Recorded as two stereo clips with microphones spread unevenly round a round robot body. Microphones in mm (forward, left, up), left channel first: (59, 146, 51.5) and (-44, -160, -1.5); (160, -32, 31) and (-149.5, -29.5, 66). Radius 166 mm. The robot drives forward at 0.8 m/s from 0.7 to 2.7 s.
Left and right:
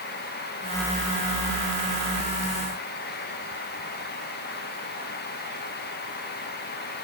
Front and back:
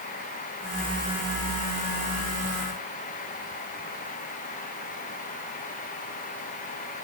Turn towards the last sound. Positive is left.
No sound to turn to.